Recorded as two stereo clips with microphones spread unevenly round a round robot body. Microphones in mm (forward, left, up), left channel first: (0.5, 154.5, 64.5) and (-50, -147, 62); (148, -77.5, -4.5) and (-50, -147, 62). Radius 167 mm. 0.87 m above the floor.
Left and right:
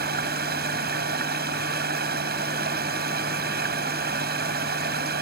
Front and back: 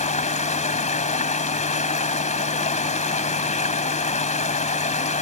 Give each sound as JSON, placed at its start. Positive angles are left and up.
{"t": 0.0, "sound": "running water", "azimuth_deg": -40}